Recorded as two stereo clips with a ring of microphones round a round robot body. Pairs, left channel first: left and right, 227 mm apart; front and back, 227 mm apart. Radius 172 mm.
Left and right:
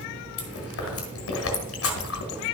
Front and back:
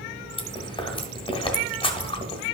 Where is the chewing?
70° left, 1.5 m.